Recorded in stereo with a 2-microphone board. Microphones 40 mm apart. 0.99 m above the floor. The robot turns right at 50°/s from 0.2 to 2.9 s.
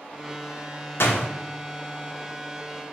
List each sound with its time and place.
1.0 s a door slam: 75° left (ahead or behind), 0.5 m; by 1.3 s 85° left, 0.5 m